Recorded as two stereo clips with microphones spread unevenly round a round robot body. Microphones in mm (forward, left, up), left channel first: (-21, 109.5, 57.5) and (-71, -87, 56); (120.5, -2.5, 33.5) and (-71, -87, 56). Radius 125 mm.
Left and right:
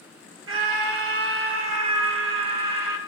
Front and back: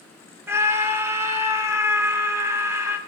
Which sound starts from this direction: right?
A scream, at 0.5 s.